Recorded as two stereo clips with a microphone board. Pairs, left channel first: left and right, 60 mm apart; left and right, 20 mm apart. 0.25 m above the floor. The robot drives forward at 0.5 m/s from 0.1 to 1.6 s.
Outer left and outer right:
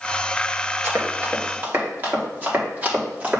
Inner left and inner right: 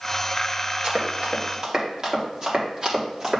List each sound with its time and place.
0.8 s running footsteps: 45° right (ahead or behind), 3.5 m; by 3.4 s 25° right (ahead or behind), 4.5 m